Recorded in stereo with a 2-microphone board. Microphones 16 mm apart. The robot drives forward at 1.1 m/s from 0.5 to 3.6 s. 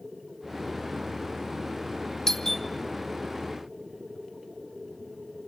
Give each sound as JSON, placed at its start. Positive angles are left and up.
{"t": 2.3, "sound": "a doorbell", "side_deg": 30, "distance_m": 1.5}